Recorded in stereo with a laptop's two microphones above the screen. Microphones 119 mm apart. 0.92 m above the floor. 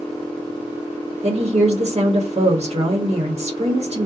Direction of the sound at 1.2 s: 65° right (ahead or behind).